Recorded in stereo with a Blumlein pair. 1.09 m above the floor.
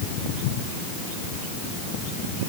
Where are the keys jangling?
I don't hear keys jangling.